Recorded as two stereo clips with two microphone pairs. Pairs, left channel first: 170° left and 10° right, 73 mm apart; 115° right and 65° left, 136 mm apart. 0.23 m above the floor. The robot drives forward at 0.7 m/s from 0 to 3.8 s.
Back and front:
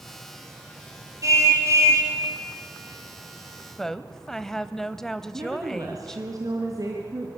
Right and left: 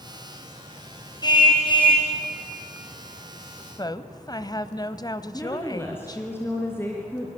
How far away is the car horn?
About 5 m.